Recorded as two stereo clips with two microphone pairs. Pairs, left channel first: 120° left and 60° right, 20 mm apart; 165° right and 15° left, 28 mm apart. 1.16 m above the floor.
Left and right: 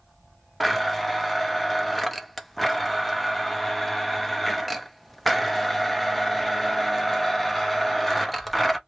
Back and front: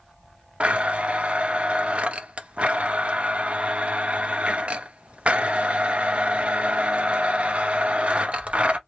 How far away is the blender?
About 0.6 m.